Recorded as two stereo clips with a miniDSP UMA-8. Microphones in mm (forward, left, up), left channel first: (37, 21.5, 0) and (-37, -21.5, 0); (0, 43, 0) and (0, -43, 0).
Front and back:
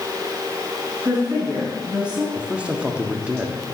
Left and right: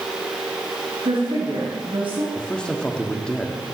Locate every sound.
1.1 s a woman speaking: 70° right, 6 m
2.4 s a man speaking: 155° left, 1.3 m